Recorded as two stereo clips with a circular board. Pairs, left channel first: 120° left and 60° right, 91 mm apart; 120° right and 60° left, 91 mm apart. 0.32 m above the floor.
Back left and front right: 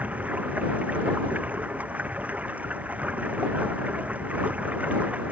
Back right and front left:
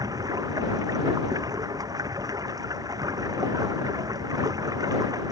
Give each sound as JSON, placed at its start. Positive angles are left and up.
{"t": 0.0, "sound": "running water", "azimuth_deg": 15}